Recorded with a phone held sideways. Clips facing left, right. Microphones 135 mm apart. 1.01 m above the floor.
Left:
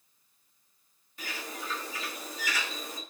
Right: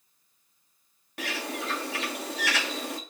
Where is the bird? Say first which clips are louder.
Right 7 dB; 85° right, 1.1 m.